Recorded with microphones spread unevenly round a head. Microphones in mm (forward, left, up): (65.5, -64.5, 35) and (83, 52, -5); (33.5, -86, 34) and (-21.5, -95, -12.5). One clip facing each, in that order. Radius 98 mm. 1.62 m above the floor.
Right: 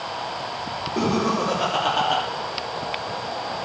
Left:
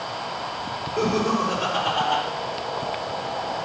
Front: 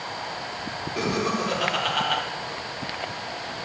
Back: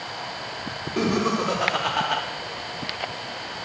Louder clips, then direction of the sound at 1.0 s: Even, back 3 dB; 105° right.